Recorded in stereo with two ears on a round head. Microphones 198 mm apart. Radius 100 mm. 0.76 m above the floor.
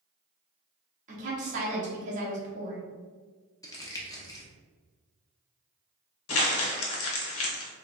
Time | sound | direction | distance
1.1 | a woman speaking | 35° right (ahead or behind) | 1.6 m
3.6 | crumpling | 15° left (ahead or behind) | 0.9 m
6.3 | crumpling | 70° left (ahead or behind) | 0.9 m